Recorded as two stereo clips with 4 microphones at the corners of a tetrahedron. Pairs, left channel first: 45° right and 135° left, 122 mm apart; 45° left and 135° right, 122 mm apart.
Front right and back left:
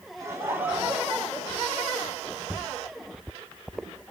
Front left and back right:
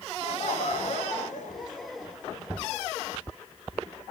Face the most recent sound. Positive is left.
turn(degrees=30)